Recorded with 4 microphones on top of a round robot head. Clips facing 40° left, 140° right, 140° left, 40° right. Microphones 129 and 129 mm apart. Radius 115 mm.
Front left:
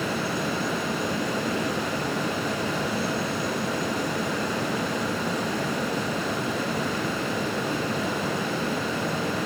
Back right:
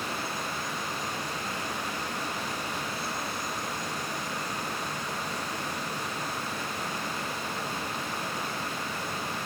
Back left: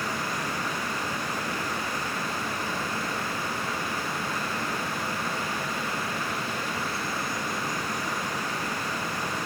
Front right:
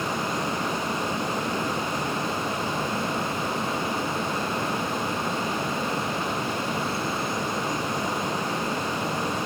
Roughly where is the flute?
I don't hear a flute.